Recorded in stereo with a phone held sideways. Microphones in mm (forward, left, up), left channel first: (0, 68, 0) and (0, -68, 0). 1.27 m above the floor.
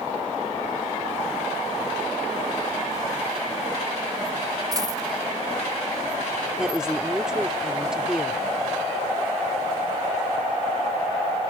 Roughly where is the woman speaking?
Centre.